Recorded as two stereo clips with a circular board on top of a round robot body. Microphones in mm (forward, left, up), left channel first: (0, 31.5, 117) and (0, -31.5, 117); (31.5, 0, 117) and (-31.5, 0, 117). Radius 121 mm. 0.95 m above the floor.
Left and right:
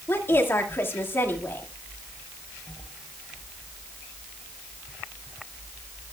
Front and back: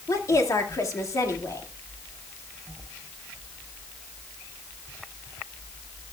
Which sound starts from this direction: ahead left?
A woman speaking, at 0.1 s.